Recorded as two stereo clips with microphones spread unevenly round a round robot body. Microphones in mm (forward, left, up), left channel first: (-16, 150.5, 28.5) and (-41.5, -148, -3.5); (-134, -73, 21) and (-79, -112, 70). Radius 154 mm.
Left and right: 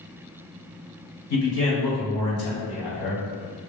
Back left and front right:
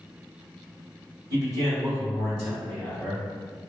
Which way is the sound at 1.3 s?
40° left.